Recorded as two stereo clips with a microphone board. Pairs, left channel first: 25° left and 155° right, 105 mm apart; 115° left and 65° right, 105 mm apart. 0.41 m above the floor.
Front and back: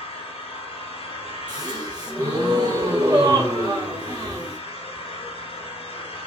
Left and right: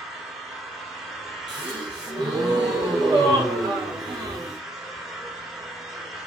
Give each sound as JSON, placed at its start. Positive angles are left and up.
{"t": 0.0, "sound": "an engine running", "azimuth_deg": 20, "distance_m": 1.2}
{"t": 1.5, "sound": "a gasp", "azimuth_deg": -110, "distance_m": 1.9}